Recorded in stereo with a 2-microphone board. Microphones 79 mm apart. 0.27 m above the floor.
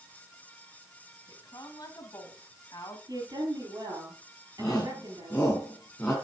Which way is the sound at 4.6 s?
15° left (ahead or behind).